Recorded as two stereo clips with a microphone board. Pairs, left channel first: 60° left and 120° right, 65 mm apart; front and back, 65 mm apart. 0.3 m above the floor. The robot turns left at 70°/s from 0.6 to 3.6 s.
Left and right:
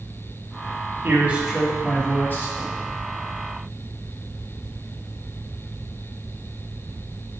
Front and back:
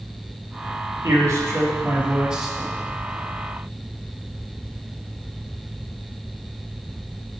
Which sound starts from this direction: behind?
A man speaking, at 1.0 s.